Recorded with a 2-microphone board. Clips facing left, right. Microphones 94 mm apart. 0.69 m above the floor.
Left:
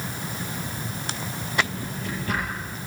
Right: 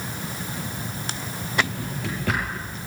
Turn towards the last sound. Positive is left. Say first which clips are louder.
# right 1 dB
turn(degrees=-85)